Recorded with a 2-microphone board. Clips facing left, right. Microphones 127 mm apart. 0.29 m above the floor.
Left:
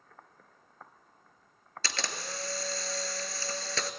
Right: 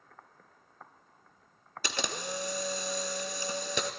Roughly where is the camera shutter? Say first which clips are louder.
Right 3 dB; centre.